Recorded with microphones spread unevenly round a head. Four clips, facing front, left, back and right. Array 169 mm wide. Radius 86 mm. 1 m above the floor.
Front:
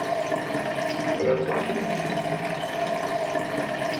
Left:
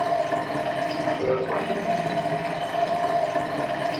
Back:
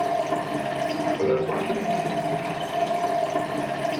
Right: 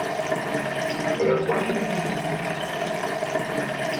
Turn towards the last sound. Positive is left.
turn(degrees=-25)